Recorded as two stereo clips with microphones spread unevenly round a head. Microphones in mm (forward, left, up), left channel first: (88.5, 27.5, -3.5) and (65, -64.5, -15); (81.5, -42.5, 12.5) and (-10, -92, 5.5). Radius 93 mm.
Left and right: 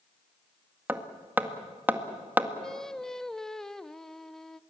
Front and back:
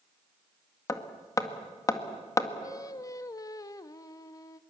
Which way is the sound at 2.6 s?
Straight ahead.